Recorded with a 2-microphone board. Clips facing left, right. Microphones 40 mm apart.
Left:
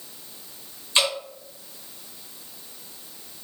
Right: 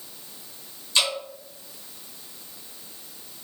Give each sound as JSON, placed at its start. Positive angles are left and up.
{"t": 0.9, "sound": "dripping", "side_deg": 25, "distance_m": 1.4}